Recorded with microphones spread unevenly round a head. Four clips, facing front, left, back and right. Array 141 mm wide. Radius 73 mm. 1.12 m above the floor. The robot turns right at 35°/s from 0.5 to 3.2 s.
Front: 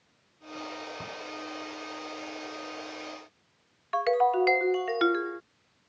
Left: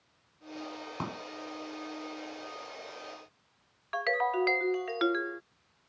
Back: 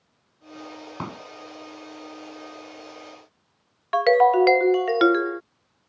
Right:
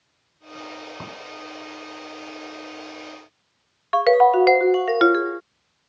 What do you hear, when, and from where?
1.0 s a pop: 165° left; by 1.2 s 170° left
3.9 s a ringtone: 130° right